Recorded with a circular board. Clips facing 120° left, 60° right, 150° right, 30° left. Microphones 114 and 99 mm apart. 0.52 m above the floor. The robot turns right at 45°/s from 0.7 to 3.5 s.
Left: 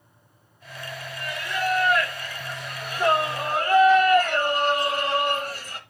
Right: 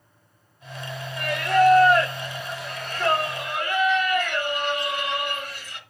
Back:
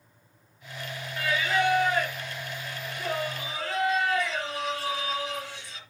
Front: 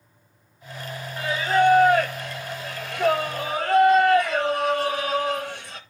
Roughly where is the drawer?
I don't hear a drawer.